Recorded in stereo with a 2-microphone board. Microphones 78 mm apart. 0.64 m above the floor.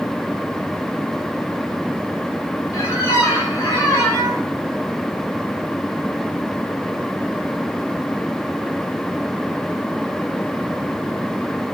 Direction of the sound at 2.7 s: 45° left (ahead or behind).